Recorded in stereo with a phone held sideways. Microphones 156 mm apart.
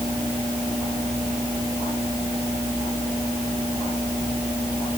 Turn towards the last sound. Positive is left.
No sound to turn to.